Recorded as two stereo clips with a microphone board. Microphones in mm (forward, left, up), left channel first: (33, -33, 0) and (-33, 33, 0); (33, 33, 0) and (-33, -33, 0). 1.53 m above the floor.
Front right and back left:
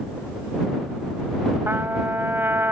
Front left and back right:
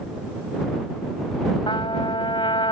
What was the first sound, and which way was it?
A trumpet, 70° left.